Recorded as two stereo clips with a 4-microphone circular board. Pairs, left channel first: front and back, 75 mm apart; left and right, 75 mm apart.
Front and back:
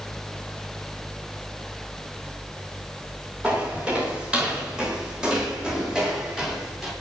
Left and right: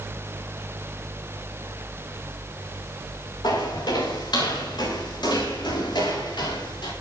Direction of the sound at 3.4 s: 110° left.